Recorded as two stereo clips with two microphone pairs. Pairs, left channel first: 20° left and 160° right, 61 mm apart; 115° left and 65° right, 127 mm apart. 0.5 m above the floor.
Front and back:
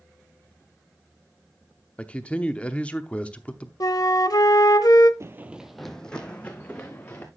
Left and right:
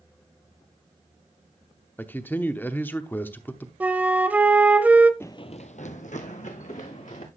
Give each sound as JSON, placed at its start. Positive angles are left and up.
{"t": 2.0, "sound": "a man speaking", "azimuth_deg": 55, "distance_m": 0.8}
{"t": 3.8, "sound": "a flute", "azimuth_deg": 10, "distance_m": 0.9}
{"t": 5.2, "sound": "running footsteps", "azimuth_deg": -175, "distance_m": 0.6}